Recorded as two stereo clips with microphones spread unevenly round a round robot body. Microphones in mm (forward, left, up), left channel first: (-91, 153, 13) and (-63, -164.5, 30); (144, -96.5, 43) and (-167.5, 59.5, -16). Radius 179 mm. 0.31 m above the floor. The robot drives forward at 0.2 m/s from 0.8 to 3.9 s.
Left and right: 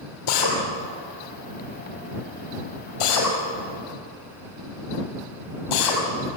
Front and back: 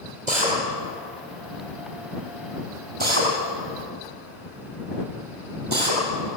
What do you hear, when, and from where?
0.3 s a drill: 85° left, 5.5 m; by 6.0 s 90° left, 5.5 m